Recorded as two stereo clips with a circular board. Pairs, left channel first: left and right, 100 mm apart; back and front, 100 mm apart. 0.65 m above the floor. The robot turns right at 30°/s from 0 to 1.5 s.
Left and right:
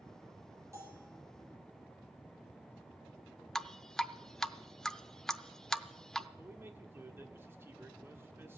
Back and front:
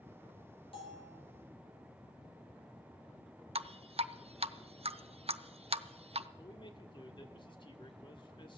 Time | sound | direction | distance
0.7 | a bell | 150° right | 5 m
3.5 | dripping | 5° left | 0.6 m
6.4 | a man speaking | 155° right | 1.5 m